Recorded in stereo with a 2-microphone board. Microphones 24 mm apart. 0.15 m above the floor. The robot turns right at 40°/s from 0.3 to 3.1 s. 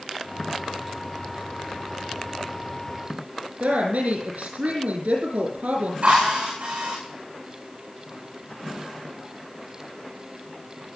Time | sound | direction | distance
3.6 | a woman speaking | 75° right (ahead or behind) | 5.5 m
6.0 | a drill | 55° right (ahead or behind) | 9.5 m